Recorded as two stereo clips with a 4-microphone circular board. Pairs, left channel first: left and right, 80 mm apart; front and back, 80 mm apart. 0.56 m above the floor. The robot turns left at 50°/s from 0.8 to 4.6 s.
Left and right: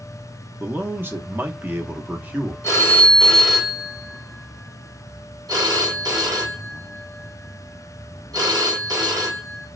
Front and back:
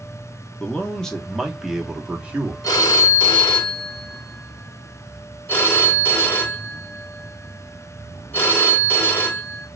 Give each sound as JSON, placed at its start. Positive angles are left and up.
{"t": 0.6, "sound": "a man speaking", "azimuth_deg": -60, "distance_m": 0.7}
{"t": 2.6, "sound": "a phone ringing", "azimuth_deg": 40, "distance_m": 1.2}